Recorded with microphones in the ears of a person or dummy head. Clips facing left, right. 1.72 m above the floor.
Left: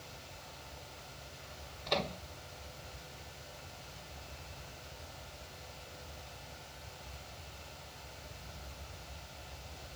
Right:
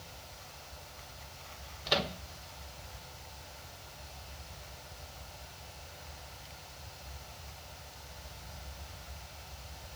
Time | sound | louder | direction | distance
1.9 | a microwave | right 2 dB | 10° right (ahead or behind) | ?